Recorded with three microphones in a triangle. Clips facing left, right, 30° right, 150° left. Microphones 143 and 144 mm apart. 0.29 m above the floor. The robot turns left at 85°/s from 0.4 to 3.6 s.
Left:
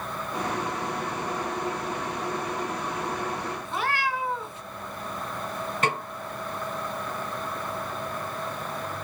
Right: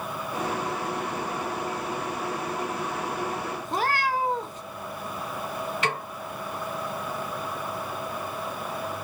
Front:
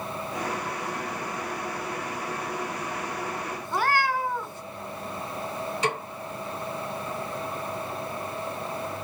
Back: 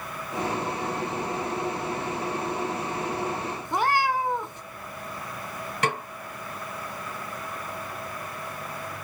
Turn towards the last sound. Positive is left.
turn(degrees=130)